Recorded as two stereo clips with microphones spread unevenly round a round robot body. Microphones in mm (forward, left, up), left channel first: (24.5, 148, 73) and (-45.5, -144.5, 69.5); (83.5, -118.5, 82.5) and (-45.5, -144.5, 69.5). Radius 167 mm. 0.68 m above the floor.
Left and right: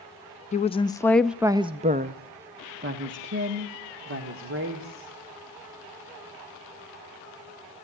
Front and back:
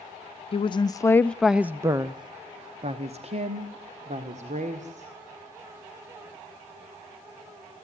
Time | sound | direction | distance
0.5 | a woman speaking | 25° left | 0.8 m